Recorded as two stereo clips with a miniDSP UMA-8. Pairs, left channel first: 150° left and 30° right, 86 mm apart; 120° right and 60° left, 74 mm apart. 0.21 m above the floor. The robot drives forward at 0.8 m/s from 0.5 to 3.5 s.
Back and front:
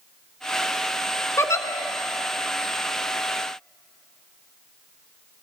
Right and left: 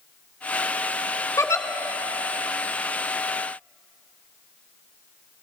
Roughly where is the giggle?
Behind.